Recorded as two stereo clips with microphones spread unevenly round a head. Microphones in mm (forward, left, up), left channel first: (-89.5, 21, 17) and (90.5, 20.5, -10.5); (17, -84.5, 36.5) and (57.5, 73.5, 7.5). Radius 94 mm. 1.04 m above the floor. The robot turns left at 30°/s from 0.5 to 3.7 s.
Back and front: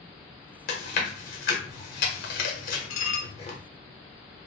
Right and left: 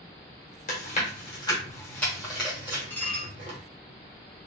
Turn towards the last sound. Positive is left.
turn(degrees=155)